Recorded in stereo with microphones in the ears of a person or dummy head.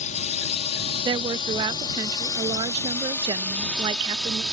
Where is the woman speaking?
20° right (ahead or behind).